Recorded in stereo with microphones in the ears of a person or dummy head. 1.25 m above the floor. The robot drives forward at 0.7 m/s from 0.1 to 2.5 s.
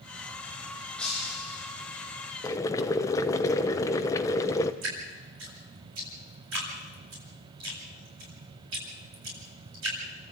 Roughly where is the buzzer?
I don't hear a buzzer.